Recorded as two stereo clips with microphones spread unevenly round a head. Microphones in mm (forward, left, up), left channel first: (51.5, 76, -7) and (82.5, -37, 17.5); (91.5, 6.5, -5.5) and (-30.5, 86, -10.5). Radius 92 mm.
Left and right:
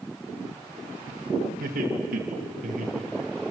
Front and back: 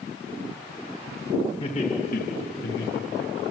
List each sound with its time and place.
1.6 s laughter: 95° right, 2.5 m; by 3.3 s 40° right, 1.6 m